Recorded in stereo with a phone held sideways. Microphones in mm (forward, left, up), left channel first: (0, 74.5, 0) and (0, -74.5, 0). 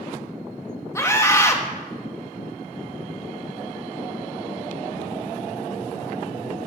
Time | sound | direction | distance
0.9 | a scream | 20° left (ahead or behind) | 1.2 m